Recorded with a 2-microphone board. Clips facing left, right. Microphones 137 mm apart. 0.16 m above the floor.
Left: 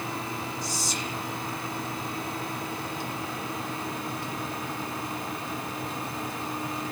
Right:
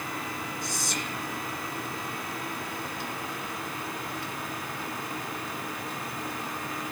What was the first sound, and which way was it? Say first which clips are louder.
Whispering: left 1 dB; 60° right (ahead or behind).